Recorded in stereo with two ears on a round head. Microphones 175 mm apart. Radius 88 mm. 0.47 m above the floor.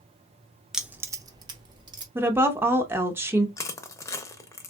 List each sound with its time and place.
0.7 s keys jangling: centre (ahead or behind), 0.5 m; by 2.0 s 25° right (ahead or behind), 1.1 m
2.1 s a woman speaking: 10° right (ahead or behind), 0.8 m
3.6 s crushing: 15° left (ahead or behind), 0.6 m